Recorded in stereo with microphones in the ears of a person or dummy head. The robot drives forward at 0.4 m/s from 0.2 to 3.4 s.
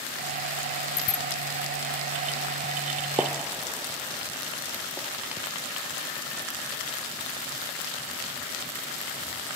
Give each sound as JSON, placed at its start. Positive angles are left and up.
{"t": 1.0, "sound": "a bicycle bell", "side_deg": 15}
{"t": 3.2, "sound": "a gunshot", "side_deg": -10}